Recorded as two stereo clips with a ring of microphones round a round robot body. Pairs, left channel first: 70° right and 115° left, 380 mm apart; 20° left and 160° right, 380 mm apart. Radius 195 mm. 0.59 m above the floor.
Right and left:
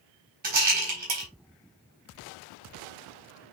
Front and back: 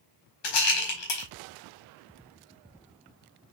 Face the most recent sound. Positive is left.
turn(degrees=45)